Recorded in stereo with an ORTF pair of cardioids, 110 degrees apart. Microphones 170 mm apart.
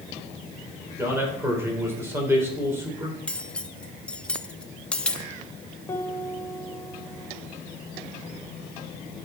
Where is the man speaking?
15° right, 4.5 m.